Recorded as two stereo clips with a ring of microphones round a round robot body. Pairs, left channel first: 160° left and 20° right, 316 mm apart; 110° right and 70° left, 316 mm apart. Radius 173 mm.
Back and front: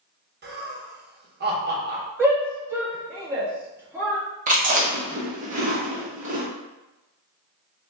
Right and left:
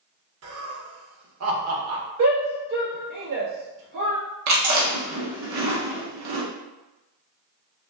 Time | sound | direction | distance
0.4 | laughter | 30° left | 1.2 m
2.2 | a shout | 60° left | 1.6 m
4.5 | chewing | 40° left | 1.1 m